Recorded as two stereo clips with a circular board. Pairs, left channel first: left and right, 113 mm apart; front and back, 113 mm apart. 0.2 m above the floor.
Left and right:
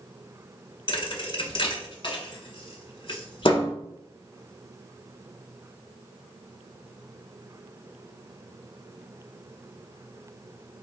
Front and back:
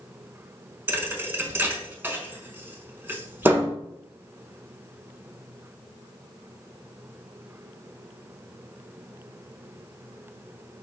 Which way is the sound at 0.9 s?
110° left.